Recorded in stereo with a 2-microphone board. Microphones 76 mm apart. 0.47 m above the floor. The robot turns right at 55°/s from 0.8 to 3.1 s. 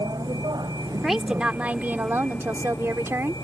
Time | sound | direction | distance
0.0 | a vehicle | 60° right (ahead or behind) | ?
1.0 | a woman speaking | straight behind | ?